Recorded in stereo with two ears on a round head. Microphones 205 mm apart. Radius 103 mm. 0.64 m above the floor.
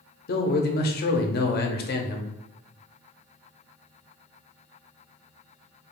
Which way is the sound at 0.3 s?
40° left (ahead or behind).